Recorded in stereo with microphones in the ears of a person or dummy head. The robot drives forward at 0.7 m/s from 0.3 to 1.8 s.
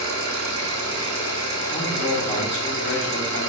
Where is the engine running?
85° right, 4 m; by 3.5 s 80° right, 4 m.